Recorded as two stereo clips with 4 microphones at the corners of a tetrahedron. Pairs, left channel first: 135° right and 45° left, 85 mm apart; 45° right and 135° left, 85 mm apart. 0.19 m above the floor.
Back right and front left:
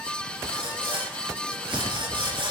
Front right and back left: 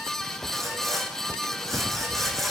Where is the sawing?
45° left, 6.5 m.